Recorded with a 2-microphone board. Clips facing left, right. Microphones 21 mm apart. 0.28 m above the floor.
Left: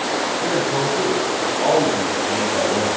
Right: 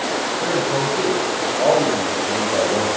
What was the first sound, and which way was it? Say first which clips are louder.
A man speaking: right 1 dB; 60° right (ahead or behind).